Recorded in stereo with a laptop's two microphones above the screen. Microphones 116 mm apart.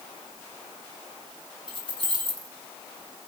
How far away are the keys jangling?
About 3.5 m.